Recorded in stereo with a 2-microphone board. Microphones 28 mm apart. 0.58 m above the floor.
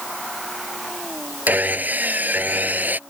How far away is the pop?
I don't hear a pop.